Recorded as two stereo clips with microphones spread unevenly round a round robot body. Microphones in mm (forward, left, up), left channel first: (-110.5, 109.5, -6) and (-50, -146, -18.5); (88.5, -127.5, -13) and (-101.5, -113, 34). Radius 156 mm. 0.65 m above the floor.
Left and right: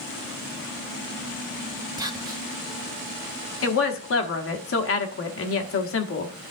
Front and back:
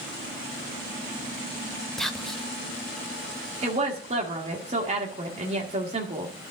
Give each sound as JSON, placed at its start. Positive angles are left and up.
{"t": 2.0, "sound": "whispering", "azimuth_deg": -40, "distance_m": 0.6}
{"t": 3.6, "sound": "a woman speaking", "azimuth_deg": 105, "distance_m": 1.3}